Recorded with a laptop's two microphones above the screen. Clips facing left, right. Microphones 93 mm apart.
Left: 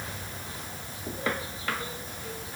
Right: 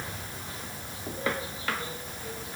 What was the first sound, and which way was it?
Only background noise.